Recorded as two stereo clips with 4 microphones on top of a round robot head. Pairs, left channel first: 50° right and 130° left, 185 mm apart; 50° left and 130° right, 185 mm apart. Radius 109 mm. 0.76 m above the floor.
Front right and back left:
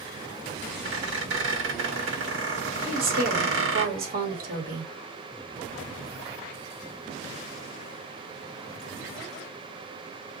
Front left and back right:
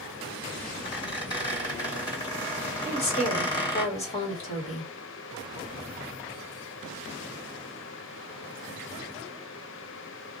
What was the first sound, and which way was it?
A squeak, 115° left.